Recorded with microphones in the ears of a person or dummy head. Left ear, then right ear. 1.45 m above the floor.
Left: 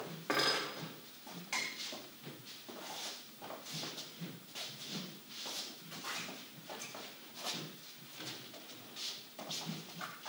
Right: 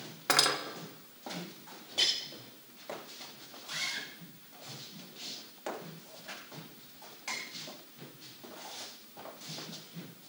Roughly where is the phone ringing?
I don't hear a phone ringing.